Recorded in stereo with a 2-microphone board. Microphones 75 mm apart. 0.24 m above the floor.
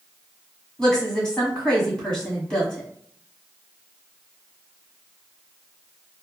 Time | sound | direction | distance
0.8 | a woman speaking | 15° left (ahead or behind) | 1.6 m